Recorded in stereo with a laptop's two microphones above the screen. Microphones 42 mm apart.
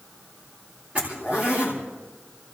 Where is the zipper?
35° right (ahead or behind), 3.5 m.